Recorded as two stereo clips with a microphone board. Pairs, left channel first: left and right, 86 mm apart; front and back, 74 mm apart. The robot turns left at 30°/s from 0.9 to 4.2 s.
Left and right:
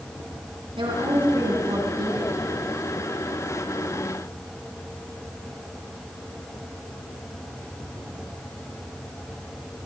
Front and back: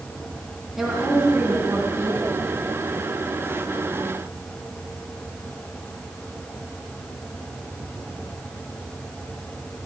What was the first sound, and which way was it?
A woman speaking, 95° right.